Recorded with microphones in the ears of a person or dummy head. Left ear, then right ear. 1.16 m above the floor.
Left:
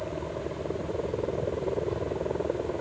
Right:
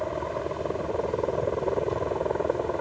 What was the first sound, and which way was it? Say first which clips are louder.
A helicopter: right 4 dB; 45° right (ahead or behind).